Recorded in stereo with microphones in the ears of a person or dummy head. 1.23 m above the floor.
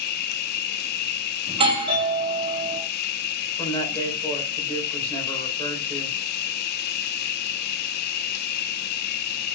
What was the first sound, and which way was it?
An insect, 55° left (ahead or behind).